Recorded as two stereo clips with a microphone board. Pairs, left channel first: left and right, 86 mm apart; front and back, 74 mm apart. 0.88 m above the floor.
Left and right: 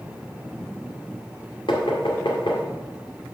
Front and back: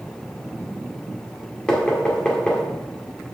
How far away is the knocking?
About 1.9 m.